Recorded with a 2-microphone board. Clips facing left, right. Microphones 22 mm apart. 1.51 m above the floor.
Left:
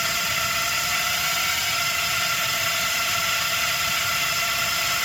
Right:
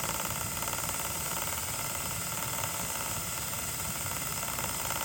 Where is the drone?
60° left (ahead or behind).